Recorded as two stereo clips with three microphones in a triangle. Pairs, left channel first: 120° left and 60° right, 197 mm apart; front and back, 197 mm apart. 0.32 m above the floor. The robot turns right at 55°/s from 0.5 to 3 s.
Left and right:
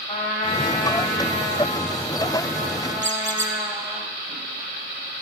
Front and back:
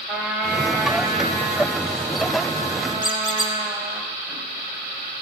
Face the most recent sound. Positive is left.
turn(degrees=-50)